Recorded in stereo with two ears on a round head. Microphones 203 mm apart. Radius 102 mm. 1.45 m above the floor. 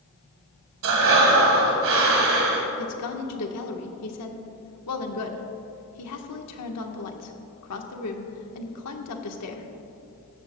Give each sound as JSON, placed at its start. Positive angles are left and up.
{"t": 0.8, "sound": "breathing", "side_deg": -65, "distance_m": 1.6}
{"t": 2.8, "sound": "a woman speaking", "side_deg": 80, "distance_m": 1.3}